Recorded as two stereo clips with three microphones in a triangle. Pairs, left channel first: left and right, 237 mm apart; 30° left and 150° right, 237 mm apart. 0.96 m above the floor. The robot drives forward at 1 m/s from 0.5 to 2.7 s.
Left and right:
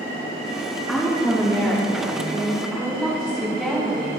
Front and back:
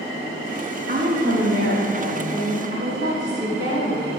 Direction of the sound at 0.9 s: 175° left.